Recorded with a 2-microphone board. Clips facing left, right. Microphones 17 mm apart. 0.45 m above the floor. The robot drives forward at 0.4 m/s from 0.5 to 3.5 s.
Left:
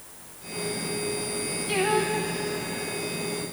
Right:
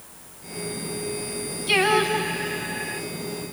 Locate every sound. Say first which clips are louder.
1.7 s singing: right 5 dB; 50° right (ahead or behind), 1.4 m; by 3.0 s 75° right (ahead or behind), 1.2 m